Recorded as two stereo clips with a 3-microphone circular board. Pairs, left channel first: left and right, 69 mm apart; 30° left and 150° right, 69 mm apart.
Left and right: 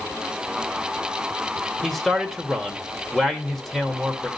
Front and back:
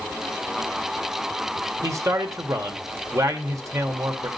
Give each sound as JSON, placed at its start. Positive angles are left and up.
{"t": 1.8, "sound": "a man speaking", "azimuth_deg": 180, "distance_m": 2.0}